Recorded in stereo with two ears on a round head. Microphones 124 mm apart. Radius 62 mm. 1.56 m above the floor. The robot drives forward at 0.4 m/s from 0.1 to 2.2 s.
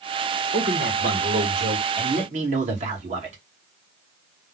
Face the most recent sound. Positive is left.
turn(degrees=-55)  # may be behind; listen again after turning